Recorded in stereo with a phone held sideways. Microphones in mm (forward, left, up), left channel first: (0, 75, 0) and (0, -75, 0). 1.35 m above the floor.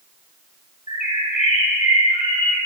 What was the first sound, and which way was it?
A bird, 60° left (ahead or behind).